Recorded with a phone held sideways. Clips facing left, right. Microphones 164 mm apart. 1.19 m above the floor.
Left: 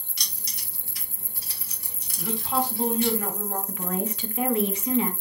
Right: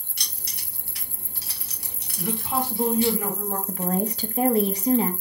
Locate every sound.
0.2 s keys jangling: 55° right (ahead or behind), 1.7 m; by 3.1 s 30° right (ahead or behind), 1.4 m
2.2 s a woman speaking: 10° right (ahead or behind), 1.7 m
3.7 s a woman speaking: 40° right (ahead or behind), 0.6 m